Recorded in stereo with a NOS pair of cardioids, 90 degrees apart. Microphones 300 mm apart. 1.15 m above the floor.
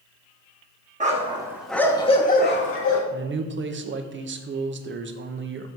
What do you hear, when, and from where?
1.0 s a dog barking: 25° right, 1.6 m; by 3.0 s 55° left, 1.7 m
3.1 s a man speaking: 40° right, 0.9 m